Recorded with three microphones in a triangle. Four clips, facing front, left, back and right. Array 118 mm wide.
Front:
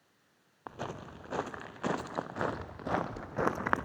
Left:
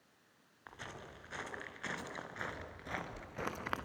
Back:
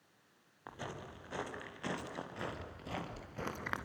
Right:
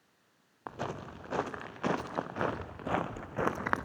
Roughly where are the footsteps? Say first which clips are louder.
Right 11 dB, front 5 dB; ahead right.